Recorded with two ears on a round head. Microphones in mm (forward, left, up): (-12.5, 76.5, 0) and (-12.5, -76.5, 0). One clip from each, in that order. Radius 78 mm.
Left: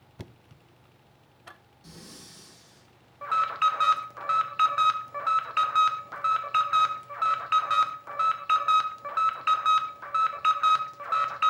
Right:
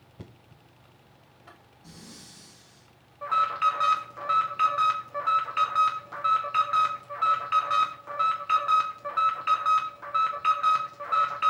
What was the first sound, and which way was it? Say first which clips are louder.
Knocking: left 2 dB; 50° left (ahead or behind).